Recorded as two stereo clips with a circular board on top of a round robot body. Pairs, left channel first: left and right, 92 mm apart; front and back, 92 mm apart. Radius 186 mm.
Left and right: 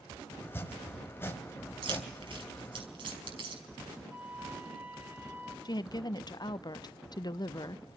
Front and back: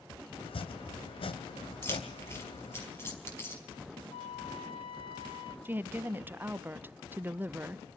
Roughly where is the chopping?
Ahead left.